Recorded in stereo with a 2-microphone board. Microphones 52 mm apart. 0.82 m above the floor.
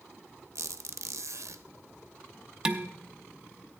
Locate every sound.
0.6 s a squeak: 70° right (ahead or behind), 0.5 m
2.6 s dishes clattering: 15° right (ahead or behind), 0.6 m